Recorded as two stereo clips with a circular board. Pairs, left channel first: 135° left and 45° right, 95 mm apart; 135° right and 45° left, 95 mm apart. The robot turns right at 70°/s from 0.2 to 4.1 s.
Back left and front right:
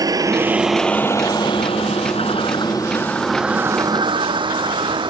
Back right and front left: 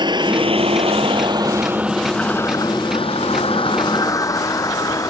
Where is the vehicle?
5° left; by 5.1 s 80° right.